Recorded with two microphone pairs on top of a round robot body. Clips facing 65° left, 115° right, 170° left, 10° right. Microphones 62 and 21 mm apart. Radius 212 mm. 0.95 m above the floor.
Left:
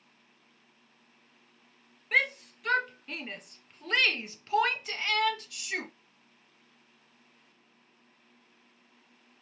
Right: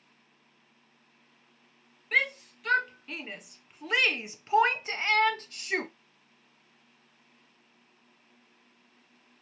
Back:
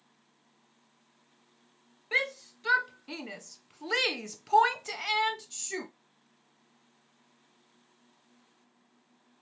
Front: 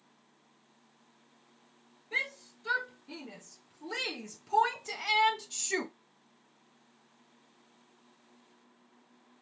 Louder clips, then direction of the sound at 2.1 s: Even, back 4 dB; 150° left.